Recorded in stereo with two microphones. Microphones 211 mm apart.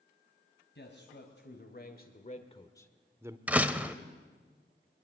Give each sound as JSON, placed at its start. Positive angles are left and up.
{"t": 0.8, "sound": "a man speaking", "side_deg": 65, "distance_m": 2.5}
{"t": 3.5, "sound": "a door slam", "side_deg": -10, "distance_m": 1.0}